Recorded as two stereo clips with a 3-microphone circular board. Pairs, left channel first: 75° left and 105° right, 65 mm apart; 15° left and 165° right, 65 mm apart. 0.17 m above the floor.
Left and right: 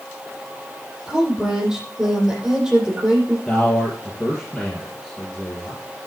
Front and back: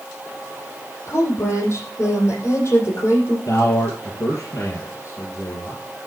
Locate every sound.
1.1 s a woman speaking: 25° right, 7.5 m
3.5 s a man speaking: 15° right, 3.5 m